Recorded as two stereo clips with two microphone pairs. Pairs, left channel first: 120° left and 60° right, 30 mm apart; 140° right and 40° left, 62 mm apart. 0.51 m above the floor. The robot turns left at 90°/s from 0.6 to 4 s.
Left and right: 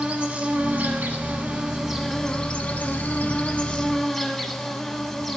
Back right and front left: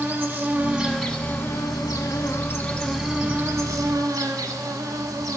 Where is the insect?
25° right, 1.0 m; by 5.4 s 30° left, 1.0 m.